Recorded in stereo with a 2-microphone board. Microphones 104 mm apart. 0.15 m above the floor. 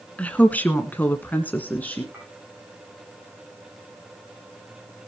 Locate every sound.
0.2 s a woman speaking: 15° left (ahead or behind), 1.8 m
2.1 s a clink: 15° right (ahead or behind), 8.5 m